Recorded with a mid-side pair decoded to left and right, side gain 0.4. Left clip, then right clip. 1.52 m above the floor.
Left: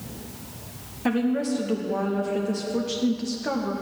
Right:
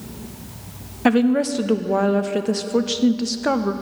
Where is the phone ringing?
I don't hear a phone ringing.